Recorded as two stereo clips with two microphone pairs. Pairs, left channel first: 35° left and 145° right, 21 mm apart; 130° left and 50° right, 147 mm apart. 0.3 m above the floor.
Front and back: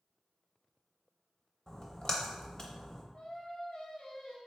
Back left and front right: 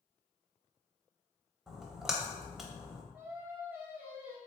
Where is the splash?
30° left, 0.6 m.